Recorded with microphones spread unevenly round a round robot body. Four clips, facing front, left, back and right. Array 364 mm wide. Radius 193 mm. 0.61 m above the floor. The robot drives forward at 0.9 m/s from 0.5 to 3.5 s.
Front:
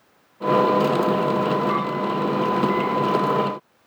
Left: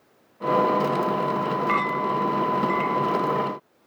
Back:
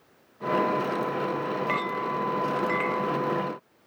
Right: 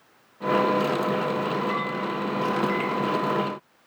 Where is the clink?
140° left; by 3.2 s 170° left.